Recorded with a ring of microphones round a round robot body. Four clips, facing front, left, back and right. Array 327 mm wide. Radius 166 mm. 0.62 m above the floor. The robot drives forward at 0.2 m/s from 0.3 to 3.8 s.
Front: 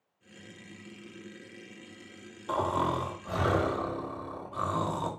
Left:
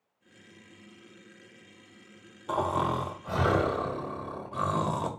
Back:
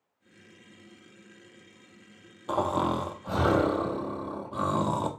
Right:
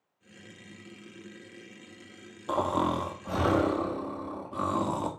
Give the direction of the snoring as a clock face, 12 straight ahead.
5 o'clock.